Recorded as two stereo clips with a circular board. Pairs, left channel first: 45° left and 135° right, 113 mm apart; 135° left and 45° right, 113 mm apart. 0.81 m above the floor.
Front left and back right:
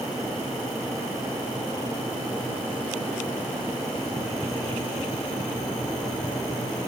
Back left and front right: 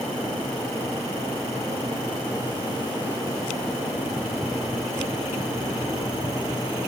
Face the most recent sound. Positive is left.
No sound to turn to.